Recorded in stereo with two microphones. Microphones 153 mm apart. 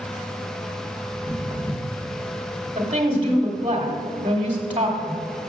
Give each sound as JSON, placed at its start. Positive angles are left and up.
{"t": 1.1, "sound": "footsteps", "side_deg": 40, "distance_m": 1.9}
{"t": 2.8, "sound": "a woman speaking", "side_deg": -35, "distance_m": 1.2}